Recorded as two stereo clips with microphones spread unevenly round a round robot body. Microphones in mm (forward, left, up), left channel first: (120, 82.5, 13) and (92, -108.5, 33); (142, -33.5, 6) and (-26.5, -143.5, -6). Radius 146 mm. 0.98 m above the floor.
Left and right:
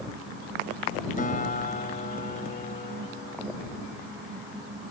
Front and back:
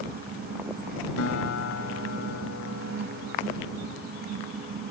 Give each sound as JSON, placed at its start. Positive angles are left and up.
{"t": 1.2, "sound": "a guitar", "azimuth_deg": 35}